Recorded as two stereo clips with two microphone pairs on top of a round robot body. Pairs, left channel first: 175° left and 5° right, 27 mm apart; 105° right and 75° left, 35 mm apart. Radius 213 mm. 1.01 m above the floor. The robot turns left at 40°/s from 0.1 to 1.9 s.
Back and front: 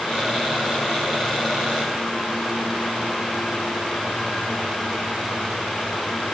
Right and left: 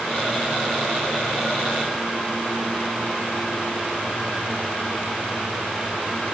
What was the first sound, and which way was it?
Only background noise.